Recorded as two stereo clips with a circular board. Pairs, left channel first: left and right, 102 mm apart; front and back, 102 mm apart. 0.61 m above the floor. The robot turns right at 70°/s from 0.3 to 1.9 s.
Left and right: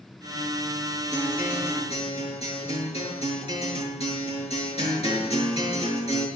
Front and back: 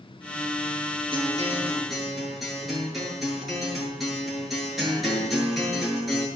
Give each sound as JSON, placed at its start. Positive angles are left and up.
{"t": 1.1, "sound": "a guitar", "azimuth_deg": 35, "distance_m": 7.5}